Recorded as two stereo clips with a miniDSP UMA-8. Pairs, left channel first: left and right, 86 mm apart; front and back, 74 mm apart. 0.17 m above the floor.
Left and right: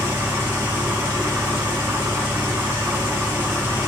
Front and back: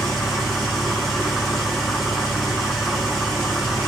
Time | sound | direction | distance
0.0 | an engine running | 90° right | 1.0 m